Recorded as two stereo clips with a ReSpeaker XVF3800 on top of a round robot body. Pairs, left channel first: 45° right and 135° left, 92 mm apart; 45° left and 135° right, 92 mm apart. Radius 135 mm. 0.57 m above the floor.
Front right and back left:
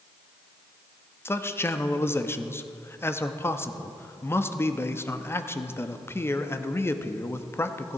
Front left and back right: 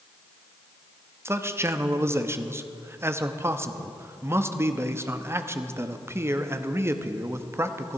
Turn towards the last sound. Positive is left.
turn(degrees=-90)